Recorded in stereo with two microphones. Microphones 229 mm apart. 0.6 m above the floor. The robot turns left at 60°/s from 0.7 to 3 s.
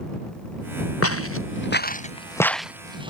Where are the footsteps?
85° left; by 3.1 s 20° right (ahead or behind).